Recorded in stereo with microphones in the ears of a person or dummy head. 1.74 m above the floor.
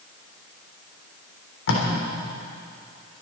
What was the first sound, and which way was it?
Tape being pulled, 75° left (ahead or behind).